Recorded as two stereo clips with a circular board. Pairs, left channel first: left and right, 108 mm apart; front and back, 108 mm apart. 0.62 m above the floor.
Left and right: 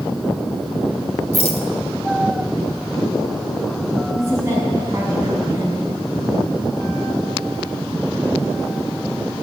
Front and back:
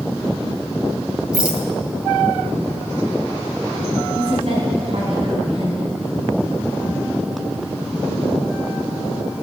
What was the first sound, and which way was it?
A rattle, 100° left.